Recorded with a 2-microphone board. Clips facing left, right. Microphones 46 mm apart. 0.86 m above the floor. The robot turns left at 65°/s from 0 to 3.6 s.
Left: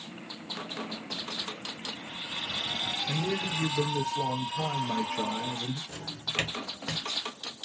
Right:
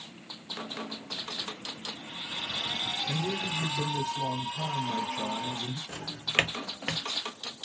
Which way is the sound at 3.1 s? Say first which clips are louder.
Left 2 dB; 125° left.